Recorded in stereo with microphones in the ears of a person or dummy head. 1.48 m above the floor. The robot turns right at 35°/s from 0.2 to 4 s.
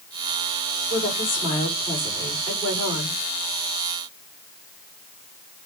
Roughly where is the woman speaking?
Behind left.